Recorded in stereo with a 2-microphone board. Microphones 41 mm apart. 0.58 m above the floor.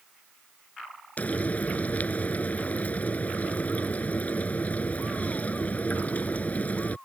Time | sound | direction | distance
1.2 | frying | 35° left (ahead or behind) | ?